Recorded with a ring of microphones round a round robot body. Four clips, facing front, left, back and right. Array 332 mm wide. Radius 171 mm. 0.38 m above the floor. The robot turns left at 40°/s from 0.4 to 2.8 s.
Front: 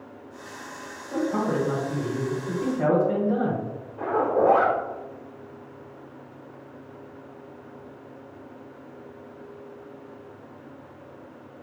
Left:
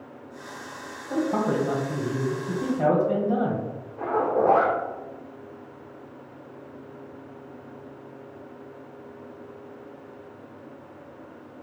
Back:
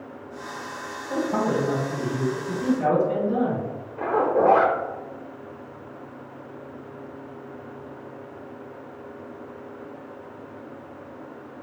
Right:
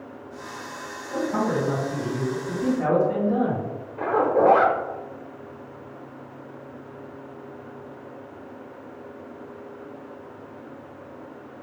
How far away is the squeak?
I don't hear a squeak.